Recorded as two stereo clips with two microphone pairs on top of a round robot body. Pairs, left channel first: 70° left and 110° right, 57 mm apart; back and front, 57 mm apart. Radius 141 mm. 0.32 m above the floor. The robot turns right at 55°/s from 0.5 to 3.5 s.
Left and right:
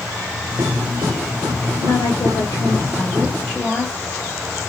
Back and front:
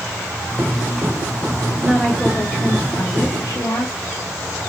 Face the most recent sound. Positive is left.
turn(degrees=160)